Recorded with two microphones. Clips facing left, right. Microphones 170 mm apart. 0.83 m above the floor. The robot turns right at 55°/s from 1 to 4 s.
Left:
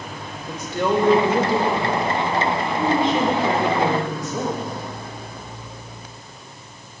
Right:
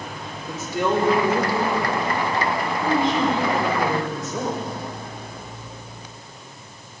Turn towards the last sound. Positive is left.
turn(degrees=160)